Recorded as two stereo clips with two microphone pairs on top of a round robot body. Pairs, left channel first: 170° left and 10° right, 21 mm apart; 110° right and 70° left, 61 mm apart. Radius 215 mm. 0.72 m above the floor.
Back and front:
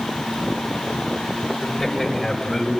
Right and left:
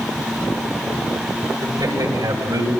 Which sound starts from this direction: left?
A man speaking, at 1.6 s.